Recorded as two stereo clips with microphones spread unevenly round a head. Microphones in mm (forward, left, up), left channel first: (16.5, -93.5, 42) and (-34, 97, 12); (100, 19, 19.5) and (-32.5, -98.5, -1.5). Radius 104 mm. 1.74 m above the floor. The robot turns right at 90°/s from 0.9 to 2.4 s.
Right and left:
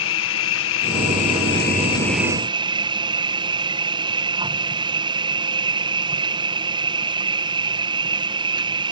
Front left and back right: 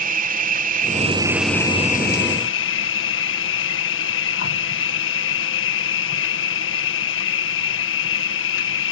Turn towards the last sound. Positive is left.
turn(degrees=35)